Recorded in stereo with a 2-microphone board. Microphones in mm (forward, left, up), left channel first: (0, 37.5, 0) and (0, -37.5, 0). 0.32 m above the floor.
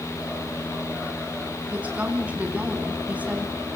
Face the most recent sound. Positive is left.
turn(degrees=-20)  # may be behind; listen again after turning